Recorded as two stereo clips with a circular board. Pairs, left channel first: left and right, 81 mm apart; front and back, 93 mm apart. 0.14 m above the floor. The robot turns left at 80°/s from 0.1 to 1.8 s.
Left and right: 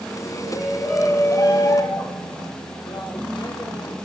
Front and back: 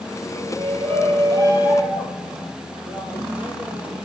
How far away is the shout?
About 4 m.